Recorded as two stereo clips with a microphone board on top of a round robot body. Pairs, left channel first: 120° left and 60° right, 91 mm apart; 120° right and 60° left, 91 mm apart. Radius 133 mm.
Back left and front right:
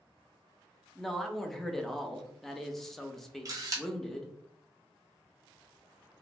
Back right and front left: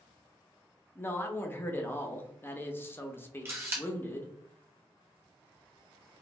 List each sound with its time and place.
0.9 s a man speaking: 155° right, 0.7 m
3.5 s a camera shutter: 5° right, 0.8 m